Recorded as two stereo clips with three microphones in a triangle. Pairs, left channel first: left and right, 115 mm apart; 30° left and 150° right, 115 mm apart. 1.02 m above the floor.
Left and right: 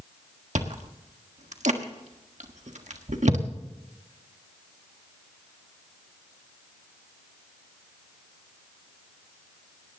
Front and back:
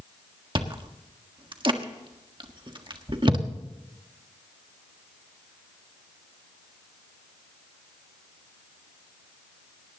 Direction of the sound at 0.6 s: 100° right.